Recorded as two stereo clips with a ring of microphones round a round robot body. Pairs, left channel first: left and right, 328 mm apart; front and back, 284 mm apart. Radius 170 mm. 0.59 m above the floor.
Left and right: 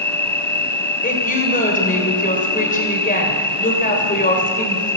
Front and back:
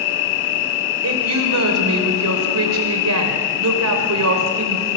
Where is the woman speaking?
155° left, 3 m.